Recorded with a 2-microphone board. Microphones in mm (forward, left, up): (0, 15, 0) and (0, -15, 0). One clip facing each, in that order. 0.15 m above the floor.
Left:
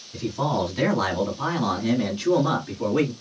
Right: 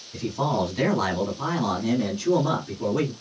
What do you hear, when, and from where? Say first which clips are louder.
0.1 s a man speaking: even; 10° right (ahead or behind), 1.4 m; by 3.1 s 25° left (ahead or behind), 1.9 m